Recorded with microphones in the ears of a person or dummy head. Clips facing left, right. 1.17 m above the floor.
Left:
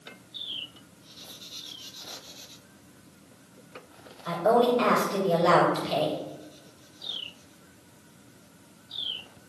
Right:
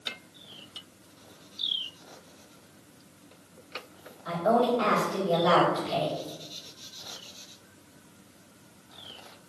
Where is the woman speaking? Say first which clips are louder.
Left 2 dB; 40° left (ahead or behind), 5 m.